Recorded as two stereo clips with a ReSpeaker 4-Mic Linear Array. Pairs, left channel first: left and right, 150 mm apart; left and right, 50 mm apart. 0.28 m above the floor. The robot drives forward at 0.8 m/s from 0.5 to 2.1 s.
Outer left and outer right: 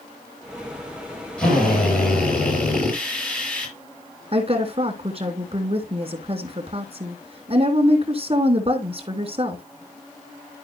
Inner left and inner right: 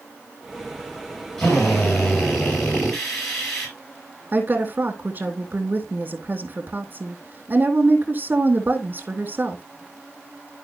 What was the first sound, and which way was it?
A drill, 5° left (ahead or behind).